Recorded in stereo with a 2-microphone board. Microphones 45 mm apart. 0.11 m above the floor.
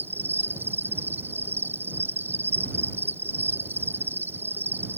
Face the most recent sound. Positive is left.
turn(degrees=-55)  # may be behind; listen again after turning